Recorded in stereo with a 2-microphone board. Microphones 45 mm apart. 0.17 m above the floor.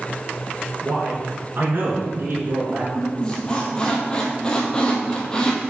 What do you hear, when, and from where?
0.8 s a man speaking: 60° right (ahead or behind), 3 m; by 2.9 s 50° right (ahead or behind), 2 m
3.0 s a squeak: 20° left (ahead or behind), 1.5 m